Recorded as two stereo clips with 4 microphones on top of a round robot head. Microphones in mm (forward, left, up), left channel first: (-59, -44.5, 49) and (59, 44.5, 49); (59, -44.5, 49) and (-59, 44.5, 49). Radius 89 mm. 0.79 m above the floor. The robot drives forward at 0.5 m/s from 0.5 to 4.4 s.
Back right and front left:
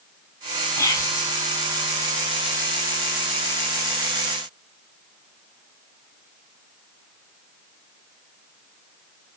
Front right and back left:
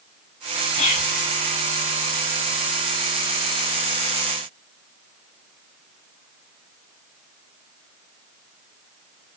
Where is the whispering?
75° right, 5.5 m.